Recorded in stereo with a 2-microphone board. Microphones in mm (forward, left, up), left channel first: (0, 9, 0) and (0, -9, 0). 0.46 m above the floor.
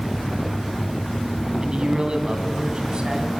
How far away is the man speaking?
About 3 m.